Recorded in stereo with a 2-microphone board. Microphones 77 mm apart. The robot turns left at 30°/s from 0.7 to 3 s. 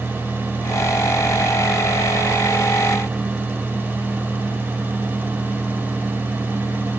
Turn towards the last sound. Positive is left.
No sound to turn to.